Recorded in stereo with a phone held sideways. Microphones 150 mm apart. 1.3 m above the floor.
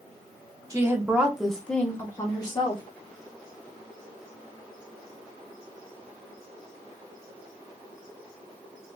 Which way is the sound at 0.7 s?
20° right (ahead or behind).